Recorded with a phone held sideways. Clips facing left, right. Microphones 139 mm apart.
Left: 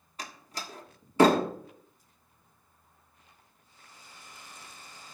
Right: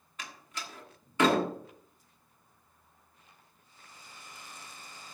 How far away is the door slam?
About 1.4 m.